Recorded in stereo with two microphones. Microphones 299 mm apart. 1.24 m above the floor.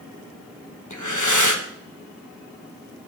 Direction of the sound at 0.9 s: 75° left (ahead or behind).